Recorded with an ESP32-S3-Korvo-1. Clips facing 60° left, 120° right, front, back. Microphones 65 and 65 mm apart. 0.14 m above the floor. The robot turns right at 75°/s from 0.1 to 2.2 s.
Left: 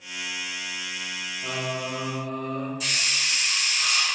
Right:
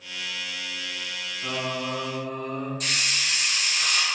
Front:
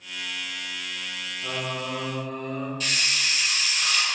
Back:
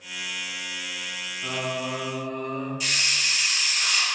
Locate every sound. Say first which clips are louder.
1.4 s singing: right 1 dB, back 2 dB; 155° right, 0.9 m; by 2.7 s 95° right, 0.9 m
2.8 s a hiss: even, even; 100° right, 1.3 m